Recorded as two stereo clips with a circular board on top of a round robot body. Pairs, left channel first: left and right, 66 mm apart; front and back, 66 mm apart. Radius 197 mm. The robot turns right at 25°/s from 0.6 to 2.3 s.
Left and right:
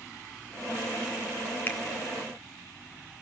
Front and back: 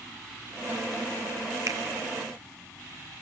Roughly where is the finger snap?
Behind left.